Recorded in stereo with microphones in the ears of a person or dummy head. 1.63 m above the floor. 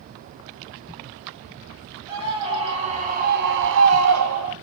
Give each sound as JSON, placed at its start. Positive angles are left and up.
{"t": 2.1, "sound": "a scream", "side_deg": -20, "distance_m": 2.0}